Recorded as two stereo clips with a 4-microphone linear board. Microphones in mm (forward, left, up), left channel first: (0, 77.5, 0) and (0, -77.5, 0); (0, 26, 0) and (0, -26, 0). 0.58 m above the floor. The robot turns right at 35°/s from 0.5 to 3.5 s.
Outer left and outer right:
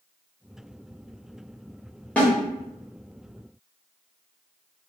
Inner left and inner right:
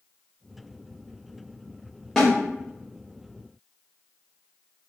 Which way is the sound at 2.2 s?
10° left (ahead or behind).